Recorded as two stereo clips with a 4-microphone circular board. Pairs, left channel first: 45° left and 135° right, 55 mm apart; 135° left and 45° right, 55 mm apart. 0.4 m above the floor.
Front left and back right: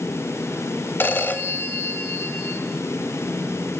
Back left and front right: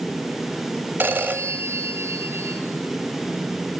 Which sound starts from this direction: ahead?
A phone ringing, at 1.0 s.